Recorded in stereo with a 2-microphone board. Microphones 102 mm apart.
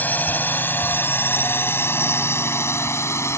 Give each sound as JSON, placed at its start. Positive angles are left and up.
{"t": 0.0, "sound": "a drone", "side_deg": 20}